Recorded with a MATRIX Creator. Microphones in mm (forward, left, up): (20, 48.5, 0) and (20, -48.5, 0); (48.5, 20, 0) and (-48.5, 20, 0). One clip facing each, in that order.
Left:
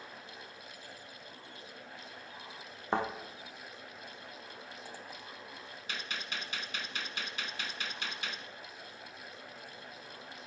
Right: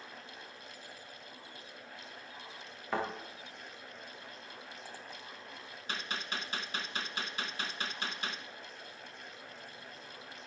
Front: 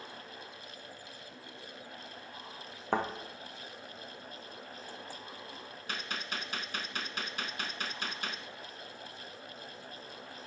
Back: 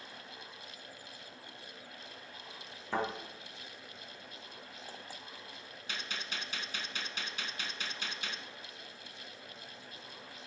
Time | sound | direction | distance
2.9 | a thud | 30° left | 2.5 m
5.9 | a gunshot | 40° right | 1.0 m